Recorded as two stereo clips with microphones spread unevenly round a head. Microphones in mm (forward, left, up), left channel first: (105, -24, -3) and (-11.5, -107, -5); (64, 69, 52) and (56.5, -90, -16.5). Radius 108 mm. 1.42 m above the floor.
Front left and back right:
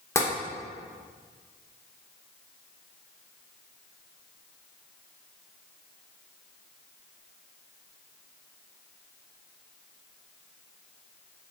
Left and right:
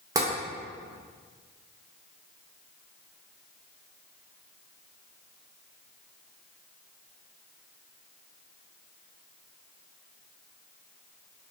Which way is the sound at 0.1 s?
5° left.